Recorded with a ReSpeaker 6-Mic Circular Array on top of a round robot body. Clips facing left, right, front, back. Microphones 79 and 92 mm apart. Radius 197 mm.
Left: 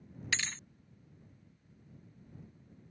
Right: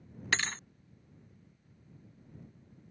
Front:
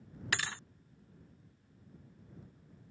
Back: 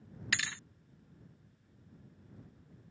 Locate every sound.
0.3 s a thud: 50° right